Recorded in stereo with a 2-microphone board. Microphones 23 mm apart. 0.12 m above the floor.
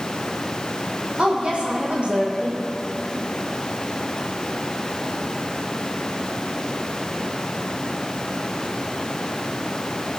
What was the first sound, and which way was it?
A woman speaking, 75° right (ahead or behind).